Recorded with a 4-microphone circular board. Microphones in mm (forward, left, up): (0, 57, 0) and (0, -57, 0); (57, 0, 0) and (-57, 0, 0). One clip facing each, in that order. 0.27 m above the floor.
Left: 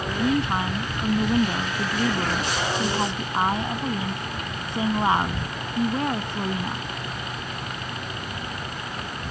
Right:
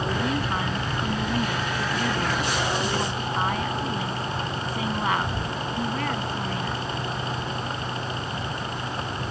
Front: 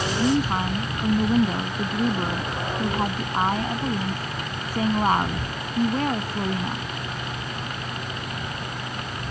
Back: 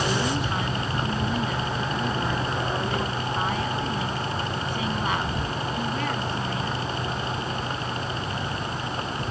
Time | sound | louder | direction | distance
0.2 | a woman speaking | left 3 dB, front 5 dB | 35° left | ?